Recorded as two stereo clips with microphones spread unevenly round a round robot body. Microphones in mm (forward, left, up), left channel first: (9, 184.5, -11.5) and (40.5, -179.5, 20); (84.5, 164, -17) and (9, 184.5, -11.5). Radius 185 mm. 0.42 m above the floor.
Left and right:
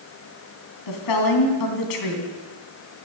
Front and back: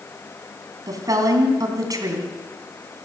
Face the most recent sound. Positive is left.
turn(degrees=125)